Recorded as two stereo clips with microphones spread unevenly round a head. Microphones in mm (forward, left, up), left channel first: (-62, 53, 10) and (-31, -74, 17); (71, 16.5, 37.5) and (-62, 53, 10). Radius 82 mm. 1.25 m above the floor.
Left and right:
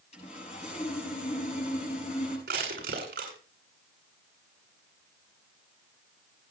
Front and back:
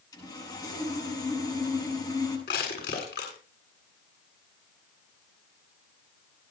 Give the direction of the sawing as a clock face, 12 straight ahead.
10 o'clock.